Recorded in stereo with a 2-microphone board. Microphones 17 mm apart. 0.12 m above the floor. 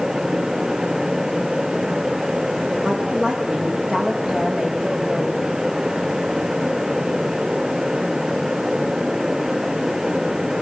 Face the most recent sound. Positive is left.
turn(degrees=-50)  # may be behind; listen again after turning